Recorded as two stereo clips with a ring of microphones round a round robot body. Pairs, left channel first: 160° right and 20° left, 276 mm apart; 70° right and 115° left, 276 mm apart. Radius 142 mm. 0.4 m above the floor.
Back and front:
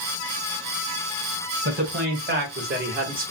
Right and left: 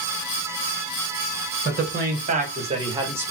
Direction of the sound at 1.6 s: 70° left.